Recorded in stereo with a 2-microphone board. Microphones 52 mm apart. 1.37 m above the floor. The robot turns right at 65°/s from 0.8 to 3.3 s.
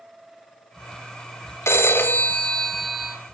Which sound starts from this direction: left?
A phone ringing, at 1.7 s.